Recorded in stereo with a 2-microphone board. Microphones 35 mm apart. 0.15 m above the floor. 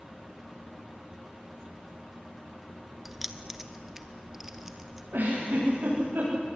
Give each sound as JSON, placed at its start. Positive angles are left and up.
{"t": 3.0, "sound": "keys jangling", "side_deg": -10, "distance_m": 1.1}
{"t": 5.1, "sound": "a giggle", "side_deg": -80, "distance_m": 9.0}